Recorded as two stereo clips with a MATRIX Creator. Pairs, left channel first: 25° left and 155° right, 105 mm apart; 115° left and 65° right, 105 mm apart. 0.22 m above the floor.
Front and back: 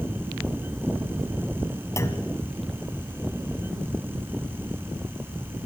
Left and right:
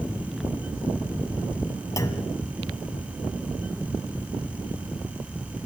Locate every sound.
2.0 s a clunk: 70° left, 1.8 m